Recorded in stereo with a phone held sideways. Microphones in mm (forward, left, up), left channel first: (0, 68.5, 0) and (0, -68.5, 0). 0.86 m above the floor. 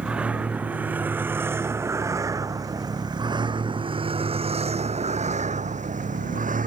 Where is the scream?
I don't hear a scream.